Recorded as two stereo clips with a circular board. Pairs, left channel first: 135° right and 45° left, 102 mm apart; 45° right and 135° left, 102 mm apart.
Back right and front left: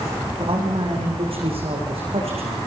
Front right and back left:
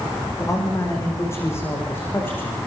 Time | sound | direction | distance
0.4 | a man speaking | 15° left | 8.5 m